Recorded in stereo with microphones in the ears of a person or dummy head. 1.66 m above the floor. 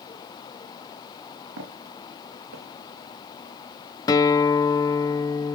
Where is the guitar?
20° left (ahead or behind), 1.0 m.